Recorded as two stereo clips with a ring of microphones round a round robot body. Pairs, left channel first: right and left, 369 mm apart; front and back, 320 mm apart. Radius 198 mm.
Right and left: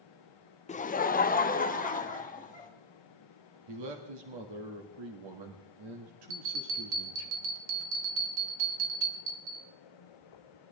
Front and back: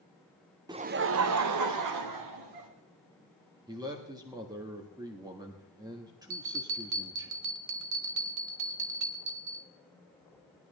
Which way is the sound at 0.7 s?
125° right.